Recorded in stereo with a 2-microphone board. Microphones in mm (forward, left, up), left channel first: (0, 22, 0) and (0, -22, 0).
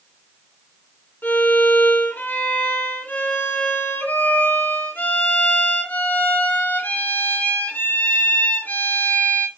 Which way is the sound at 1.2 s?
50° left (ahead or behind).